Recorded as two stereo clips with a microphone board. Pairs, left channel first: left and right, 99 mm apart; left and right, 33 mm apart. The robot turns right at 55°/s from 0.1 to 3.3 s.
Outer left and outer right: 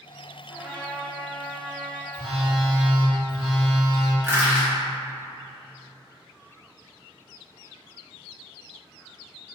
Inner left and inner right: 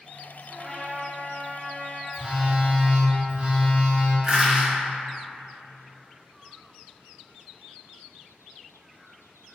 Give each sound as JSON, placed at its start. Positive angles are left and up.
{"t": 0.5, "sound": "a trumpet", "azimuth_deg": -5, "distance_m": 0.6}
{"t": 2.1, "sound": "a phone buzzing", "azimuth_deg": -135, "distance_m": 0.9}
{"t": 4.2, "sound": "crushing", "side_deg": -25, "distance_m": 1.1}